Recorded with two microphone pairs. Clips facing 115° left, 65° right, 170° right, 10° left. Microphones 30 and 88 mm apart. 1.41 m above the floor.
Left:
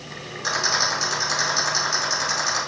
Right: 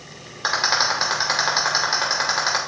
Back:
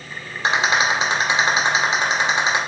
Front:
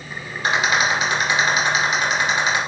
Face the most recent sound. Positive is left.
turn(degrees=-110)